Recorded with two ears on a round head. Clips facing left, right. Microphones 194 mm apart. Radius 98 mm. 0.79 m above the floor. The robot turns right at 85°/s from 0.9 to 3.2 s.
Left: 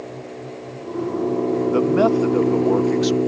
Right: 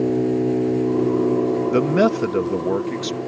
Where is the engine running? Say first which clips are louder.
Right 15 dB; 60° right; by 3.3 s 135° left.